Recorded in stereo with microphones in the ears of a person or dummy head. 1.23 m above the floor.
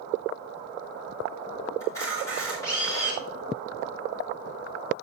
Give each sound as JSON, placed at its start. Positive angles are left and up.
{"t": 1.8, "sound": "a camera shutter", "side_deg": 20, "distance_m": 3.5}